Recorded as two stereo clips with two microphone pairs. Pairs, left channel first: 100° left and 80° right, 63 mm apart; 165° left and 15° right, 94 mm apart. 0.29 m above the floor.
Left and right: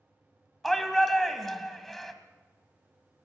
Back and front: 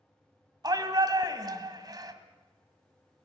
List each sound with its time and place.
0.6 s a shout: 15° left, 2 m